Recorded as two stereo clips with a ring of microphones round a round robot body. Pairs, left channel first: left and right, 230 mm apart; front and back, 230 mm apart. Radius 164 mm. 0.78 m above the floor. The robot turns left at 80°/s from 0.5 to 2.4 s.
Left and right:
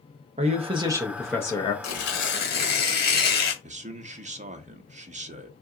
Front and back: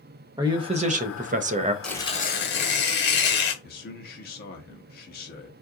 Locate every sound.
0.4 s a man speaking: 125° right, 0.5 m; by 1.7 s 135° left, 0.5 m
1.8 s tearing paper: 85° left, 1.4 m; by 3.5 s 45° left, 1.4 m
3.6 s a man speaking: 40° right, 0.8 m